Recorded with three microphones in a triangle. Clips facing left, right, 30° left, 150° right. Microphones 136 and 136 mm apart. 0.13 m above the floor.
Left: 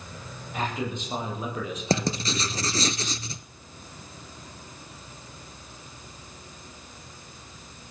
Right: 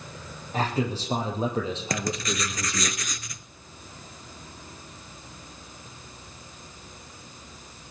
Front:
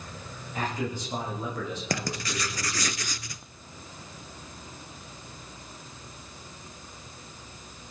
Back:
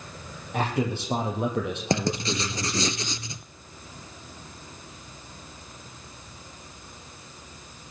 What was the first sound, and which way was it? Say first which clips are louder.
A man speaking: right 3 dB, back 5 dB; 145° right.